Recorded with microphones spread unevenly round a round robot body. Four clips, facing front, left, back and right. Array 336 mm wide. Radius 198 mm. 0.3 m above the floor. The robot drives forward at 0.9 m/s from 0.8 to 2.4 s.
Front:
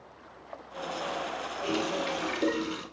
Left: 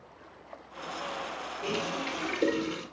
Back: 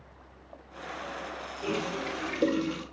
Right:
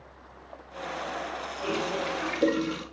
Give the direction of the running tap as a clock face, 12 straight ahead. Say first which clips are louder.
Right 4 dB, front 1 dB; 7 o'clock.